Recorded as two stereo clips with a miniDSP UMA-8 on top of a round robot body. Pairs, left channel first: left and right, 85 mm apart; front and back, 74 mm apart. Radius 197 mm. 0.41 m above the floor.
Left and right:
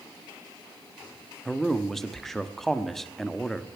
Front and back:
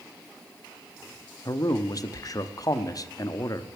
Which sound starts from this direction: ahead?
A man speaking, at 1.4 s.